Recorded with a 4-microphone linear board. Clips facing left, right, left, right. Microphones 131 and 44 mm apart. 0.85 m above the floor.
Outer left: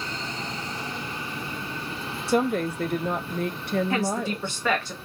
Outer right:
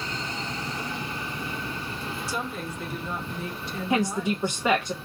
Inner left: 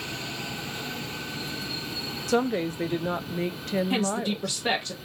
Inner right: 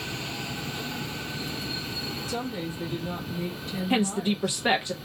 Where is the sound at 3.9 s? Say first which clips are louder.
Outer right 1 dB, inner right 1 dB; 20° right (ahead or behind), 0.6 m.